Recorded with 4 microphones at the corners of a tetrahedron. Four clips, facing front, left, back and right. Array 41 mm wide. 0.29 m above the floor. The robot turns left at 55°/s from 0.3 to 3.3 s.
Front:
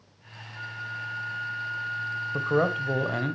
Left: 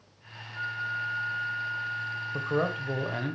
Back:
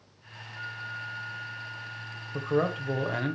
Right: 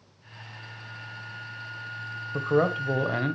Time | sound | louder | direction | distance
0.5 | a flute | left 12 dB, front 2 dB | 90° left | 0.8 m
2.3 | a man speaking | right 6 dB, front 2 dB | 30° right | 1.0 m